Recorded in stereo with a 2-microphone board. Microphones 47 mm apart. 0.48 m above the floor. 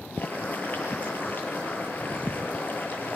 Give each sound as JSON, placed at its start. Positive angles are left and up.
{"t": 0.2, "sound": "boiling", "side_deg": 40, "distance_m": 9.0}